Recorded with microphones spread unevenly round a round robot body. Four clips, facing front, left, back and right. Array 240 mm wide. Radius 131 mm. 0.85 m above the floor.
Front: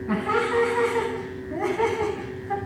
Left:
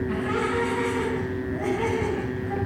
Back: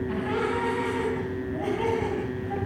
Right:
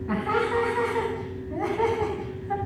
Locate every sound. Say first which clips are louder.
0.1 s laughter: right 5 dB, front 7 dB; 25° right, 8 m; by 2.6 s 20° right, 7 m